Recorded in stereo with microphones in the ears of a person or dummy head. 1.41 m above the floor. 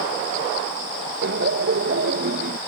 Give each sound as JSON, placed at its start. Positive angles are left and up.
{"t": 1.2, "sound": "laughter", "side_deg": -65}